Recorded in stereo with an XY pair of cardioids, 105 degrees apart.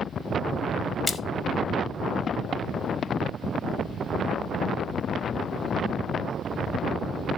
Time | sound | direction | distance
1.1 | a splash | 35° left | 1.5 m